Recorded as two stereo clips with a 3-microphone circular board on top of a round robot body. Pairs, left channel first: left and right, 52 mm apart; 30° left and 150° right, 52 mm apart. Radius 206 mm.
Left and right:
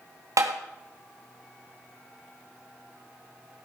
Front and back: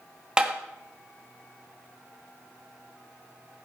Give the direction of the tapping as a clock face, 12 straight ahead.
3 o'clock.